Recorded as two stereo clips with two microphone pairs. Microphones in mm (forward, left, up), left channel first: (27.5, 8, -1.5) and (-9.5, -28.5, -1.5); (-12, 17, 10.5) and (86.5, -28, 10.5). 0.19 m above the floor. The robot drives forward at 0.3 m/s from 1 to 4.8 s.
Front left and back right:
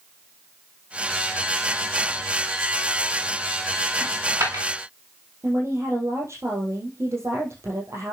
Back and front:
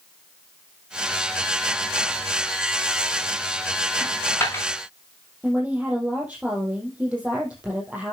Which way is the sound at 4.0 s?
135° right.